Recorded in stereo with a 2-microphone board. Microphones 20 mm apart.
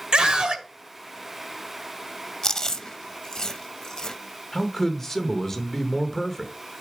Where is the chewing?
35° left (ahead or behind), 0.7 m.